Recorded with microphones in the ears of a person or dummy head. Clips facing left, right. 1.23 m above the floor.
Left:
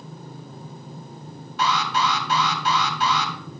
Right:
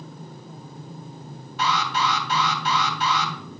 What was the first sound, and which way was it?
An alarm, 75° left (ahead or behind).